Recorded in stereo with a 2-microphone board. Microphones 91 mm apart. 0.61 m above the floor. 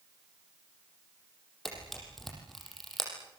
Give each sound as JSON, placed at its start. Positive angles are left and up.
{"t": 1.6, "sound": "a camera shutter", "side_deg": 0, "distance_m": 6.5}